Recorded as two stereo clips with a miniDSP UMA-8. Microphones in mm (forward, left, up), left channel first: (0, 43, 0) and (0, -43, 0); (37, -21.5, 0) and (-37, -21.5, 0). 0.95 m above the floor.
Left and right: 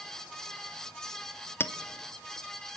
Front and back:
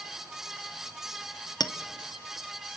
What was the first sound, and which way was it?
A clink, 25° left.